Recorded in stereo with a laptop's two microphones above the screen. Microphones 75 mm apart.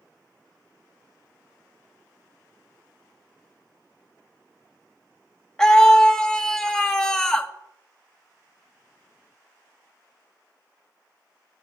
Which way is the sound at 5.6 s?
10° left (ahead or behind).